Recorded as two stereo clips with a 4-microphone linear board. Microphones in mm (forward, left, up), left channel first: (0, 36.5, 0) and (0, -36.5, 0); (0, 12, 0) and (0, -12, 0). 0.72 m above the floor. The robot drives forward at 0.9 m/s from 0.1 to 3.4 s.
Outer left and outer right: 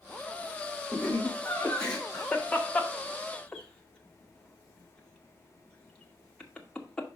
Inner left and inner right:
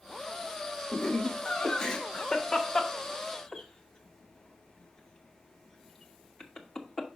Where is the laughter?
5° left (ahead or behind), 1.9 m; by 7.1 s 10° left (ahead or behind), 1.1 m.